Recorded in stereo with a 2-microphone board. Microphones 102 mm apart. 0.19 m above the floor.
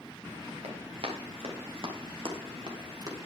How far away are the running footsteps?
About 5.5 m.